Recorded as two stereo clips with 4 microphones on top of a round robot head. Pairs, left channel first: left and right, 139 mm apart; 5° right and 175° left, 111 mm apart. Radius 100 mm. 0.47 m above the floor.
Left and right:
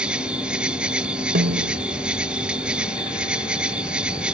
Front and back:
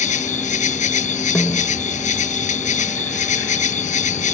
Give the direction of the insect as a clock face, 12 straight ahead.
12 o'clock.